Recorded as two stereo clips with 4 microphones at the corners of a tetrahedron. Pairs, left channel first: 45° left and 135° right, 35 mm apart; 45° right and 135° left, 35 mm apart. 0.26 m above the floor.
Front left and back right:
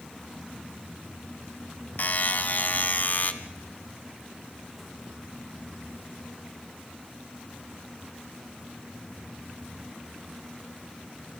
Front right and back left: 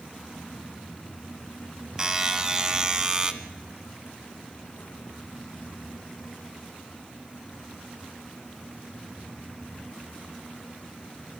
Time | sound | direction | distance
2.0 | a buzzer | 70° left | 1.3 m